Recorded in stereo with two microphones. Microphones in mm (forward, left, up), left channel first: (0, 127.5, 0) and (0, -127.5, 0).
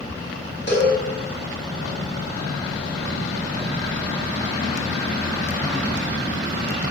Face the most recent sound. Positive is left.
turn(degrees=45)  # may be behind; listen again after turning